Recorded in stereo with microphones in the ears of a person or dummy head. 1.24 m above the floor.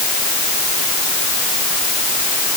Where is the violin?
I don't hear a violin.